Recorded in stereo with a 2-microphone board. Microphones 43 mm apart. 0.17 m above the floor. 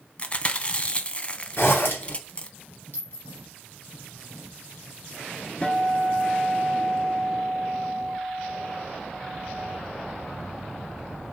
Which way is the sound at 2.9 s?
60° left (ahead or behind).